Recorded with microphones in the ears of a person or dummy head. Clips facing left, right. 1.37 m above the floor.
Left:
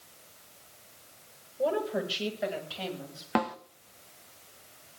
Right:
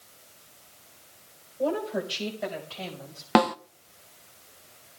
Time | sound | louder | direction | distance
1.6 | a woman speaking | right 1 dB | 5° left (ahead or behind) | 5 m
3.4 | a snare drum | right 8 dB | 60° right (ahead or behind) | 0.5 m